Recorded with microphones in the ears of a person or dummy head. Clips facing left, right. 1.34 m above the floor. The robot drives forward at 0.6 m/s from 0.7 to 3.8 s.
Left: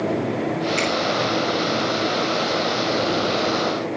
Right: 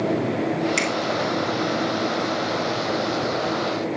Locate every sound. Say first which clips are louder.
0.8 s a finger snap: left 2 dB; 75° right (ahead or behind), 5.5 m